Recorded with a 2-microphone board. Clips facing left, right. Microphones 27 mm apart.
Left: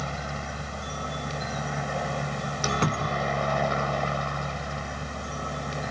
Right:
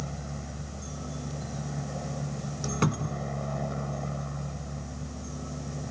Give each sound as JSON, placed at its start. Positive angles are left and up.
{"t": 0.0, "sound": "a helicopter", "side_deg": 50}
{"t": 2.8, "sound": "a cupboard door", "side_deg": 5}